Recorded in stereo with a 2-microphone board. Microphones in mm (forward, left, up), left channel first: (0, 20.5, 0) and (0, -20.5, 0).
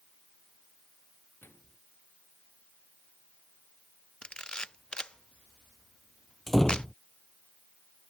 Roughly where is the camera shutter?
Left.